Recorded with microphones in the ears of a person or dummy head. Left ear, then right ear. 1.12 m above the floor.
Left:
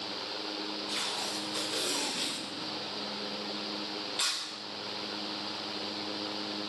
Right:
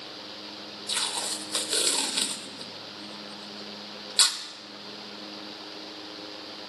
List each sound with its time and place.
0.9 s tape being pulled: 45° right (ahead or behind), 1.1 m